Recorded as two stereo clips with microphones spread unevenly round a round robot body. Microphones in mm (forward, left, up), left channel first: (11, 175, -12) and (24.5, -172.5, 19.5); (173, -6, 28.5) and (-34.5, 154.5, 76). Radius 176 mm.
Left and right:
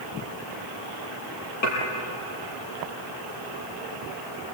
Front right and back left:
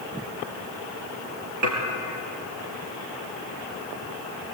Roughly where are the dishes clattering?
Behind left.